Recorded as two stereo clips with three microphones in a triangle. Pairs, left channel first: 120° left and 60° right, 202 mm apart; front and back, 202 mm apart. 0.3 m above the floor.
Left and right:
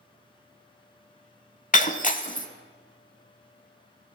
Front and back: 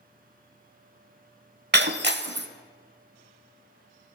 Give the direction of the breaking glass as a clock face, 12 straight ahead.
7 o'clock.